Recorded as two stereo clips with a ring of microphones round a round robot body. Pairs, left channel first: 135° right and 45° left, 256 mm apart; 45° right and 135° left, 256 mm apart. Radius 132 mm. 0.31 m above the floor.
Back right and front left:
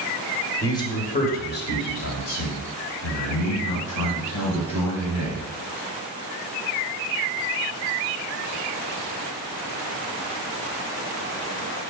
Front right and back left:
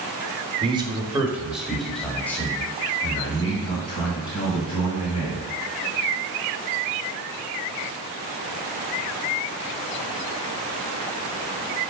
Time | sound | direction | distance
0.6 | a man speaking | 165° left | 1.1 m